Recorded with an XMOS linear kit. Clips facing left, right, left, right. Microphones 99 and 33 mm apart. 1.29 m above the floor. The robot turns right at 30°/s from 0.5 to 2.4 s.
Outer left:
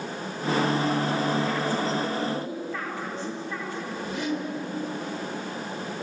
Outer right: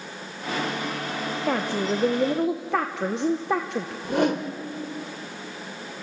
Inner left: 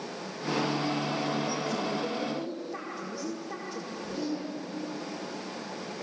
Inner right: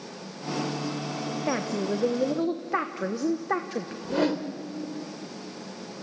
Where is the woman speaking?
60° right (ahead or behind), 1.0 m; by 3.9 s 70° right (ahead or behind), 1.0 m.